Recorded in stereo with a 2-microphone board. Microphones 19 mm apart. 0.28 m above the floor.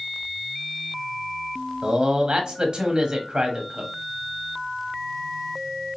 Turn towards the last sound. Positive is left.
turn(degrees=-45)  # may be behind; listen again after turning